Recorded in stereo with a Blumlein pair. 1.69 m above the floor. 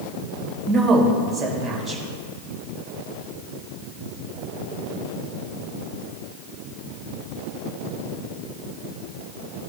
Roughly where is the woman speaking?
Ahead right.